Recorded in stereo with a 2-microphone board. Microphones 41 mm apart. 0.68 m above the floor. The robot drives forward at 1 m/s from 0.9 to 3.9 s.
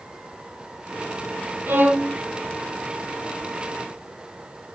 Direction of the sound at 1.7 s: 50° right (ahead or behind).